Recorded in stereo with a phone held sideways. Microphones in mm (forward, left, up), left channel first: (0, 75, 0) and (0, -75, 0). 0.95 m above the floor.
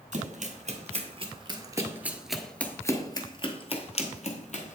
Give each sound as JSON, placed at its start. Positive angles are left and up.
{"t": 0.1, "sound": "running footsteps", "side_deg": -55, "distance_m": 1.6}